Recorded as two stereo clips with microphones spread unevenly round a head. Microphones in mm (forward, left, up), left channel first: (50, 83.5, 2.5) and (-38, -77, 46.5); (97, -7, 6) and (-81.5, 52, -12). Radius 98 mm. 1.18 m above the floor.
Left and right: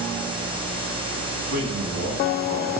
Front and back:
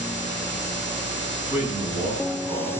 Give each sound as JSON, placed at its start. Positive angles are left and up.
{"t": 1.5, "sound": "a man speaking", "azimuth_deg": -125, "distance_m": 9.0}